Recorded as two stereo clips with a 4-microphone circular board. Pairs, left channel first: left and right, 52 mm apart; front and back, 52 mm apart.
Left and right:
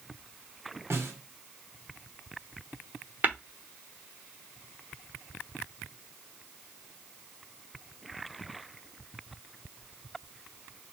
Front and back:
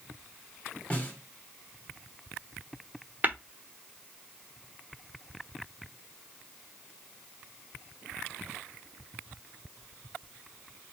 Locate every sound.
0.9 s a snare drum: 60° right, 1.6 m
3.2 s tapping: 135° right, 1.0 m